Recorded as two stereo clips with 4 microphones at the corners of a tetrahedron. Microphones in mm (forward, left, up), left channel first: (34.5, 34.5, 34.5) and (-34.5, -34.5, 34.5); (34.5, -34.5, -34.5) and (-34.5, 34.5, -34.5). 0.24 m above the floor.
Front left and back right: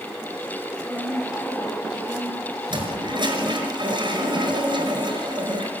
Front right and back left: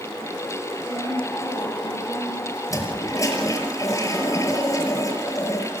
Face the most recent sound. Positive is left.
turn(degrees=-100)